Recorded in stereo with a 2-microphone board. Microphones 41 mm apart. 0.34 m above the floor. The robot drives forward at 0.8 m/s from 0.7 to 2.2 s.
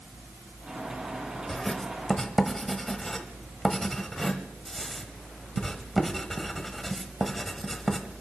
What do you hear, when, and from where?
1.5 s writing: 15° left (ahead or behind), 1.1 m; by 8.0 s 10° left (ahead or behind), 1.5 m